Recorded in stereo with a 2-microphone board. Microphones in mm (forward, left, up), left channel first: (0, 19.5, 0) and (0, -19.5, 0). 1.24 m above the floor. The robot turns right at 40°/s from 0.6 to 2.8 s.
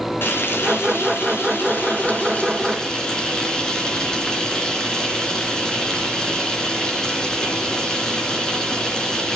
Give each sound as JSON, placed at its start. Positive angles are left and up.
{"t": 0.2, "sound": "frying", "azimuth_deg": 70, "distance_m": 3.5}